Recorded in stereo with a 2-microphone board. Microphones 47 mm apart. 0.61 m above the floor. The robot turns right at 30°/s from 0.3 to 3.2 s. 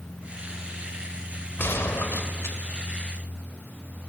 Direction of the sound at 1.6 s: 60° left (ahead or behind).